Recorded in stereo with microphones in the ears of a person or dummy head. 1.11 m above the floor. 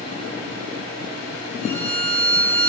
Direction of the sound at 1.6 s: 40° left (ahead or behind).